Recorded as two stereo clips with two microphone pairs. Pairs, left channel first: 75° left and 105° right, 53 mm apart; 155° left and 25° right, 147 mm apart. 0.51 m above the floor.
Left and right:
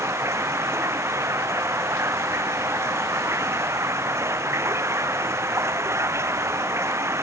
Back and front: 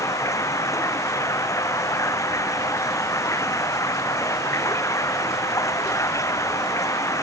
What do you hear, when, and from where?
0.0 s running water: 135° right